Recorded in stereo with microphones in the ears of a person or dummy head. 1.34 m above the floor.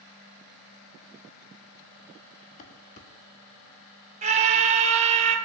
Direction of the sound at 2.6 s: 40° left (ahead or behind).